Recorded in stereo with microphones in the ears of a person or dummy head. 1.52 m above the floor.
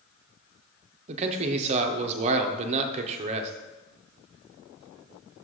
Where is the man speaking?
40° right (ahead or behind), 0.7 m.